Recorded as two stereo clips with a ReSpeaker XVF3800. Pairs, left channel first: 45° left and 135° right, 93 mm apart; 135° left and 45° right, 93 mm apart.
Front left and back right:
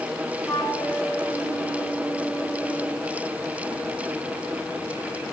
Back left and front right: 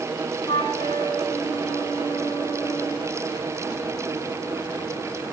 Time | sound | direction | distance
0.5 | a flute | 110° left | 4 m